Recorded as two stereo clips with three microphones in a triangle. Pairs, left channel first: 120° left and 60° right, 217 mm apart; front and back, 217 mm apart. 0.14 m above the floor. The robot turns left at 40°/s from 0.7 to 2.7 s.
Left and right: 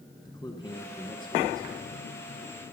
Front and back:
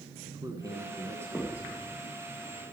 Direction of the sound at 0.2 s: 145° left.